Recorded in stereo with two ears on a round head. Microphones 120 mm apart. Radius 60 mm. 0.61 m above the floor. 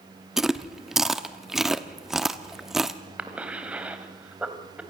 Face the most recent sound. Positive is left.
turn(degrees=-10)  # may be behind; listen again after turning